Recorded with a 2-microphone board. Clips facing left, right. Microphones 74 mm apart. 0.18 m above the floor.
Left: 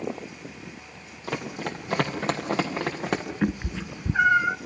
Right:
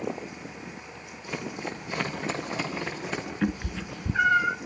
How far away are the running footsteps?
About 6 m.